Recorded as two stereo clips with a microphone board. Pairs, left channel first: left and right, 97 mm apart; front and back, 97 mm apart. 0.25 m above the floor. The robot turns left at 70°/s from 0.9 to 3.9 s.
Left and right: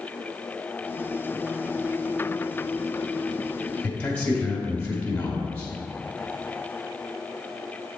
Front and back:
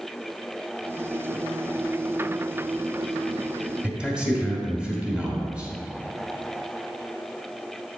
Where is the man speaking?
135° left, 1.4 m; by 5.7 s 130° left, 1.4 m.